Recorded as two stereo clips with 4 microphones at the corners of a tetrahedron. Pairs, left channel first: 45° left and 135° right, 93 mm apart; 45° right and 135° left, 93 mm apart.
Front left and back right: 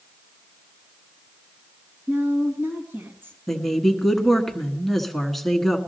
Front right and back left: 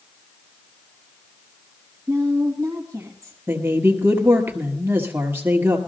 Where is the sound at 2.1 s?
Straight behind, 2.5 m.